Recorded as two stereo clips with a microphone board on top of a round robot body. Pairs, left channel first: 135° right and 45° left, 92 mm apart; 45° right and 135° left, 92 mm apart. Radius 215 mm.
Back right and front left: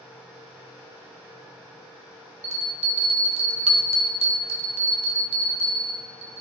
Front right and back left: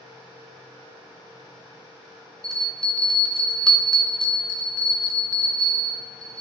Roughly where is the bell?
Ahead left.